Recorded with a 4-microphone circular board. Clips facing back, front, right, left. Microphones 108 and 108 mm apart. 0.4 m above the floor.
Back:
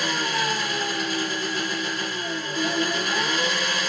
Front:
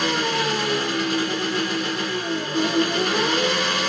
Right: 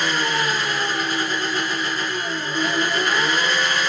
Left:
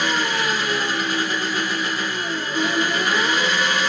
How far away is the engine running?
About 1.9 m.